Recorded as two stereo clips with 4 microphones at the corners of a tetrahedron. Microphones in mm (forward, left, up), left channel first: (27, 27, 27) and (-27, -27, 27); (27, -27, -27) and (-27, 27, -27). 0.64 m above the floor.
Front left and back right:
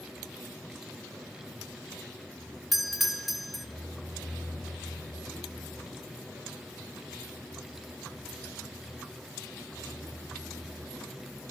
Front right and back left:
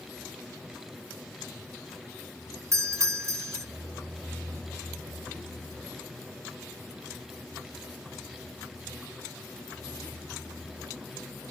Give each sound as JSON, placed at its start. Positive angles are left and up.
{"t": 2.7, "sound": "a doorbell", "azimuth_deg": 140, "distance_m": 1.2}